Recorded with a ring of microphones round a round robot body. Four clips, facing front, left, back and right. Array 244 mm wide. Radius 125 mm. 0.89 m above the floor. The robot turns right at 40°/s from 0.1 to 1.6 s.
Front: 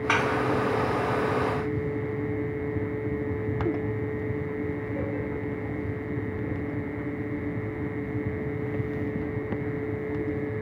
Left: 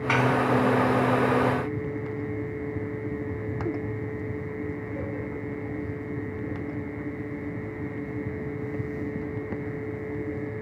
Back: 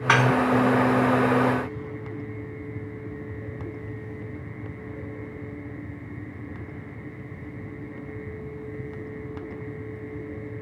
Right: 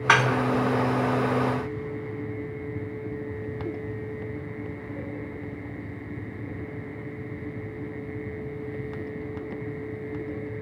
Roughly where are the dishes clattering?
Behind right.